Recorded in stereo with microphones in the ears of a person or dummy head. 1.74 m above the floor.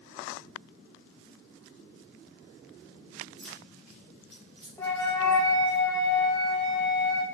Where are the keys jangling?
10° left (ahead or behind), 1.3 m; by 5.8 s 5° left (ahead or behind), 3 m.